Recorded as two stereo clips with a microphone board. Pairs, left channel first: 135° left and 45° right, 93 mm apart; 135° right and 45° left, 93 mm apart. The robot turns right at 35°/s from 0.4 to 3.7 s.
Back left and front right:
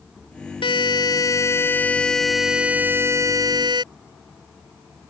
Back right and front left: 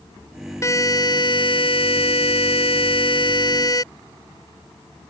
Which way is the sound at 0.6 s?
165° left.